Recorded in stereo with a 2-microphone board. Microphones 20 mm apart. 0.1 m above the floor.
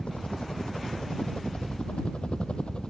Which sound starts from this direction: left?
A helicopter, at 0.0 s.